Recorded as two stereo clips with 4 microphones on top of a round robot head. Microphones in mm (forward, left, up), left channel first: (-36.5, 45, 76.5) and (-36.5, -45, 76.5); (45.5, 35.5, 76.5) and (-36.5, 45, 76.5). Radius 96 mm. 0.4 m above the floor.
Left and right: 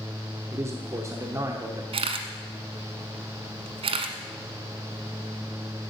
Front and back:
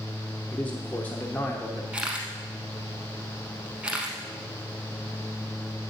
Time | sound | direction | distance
0.5 | a man speaking | 65° right | 1.1 m
1.9 | a camera shutter | 105° right | 1.0 m